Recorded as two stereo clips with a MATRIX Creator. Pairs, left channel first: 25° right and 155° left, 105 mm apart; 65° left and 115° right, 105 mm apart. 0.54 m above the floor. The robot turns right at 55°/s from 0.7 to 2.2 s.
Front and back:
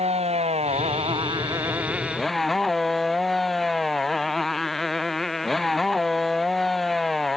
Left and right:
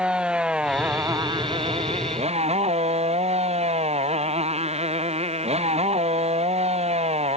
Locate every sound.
0.0 s a motorcycle: 165° left; by 7.4 s 110° right